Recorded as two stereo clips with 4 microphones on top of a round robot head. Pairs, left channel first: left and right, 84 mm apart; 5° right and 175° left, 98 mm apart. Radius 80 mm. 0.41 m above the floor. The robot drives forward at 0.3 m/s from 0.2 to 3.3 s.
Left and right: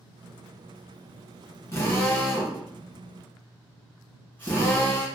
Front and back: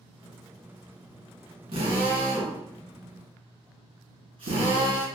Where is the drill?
150° left, 1.8 m; by 5.0 s 155° left, 2 m.